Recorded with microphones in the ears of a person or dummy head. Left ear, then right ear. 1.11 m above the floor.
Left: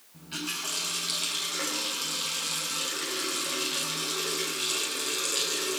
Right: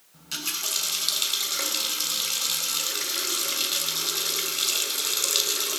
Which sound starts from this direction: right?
A running tap, at 0.1 s.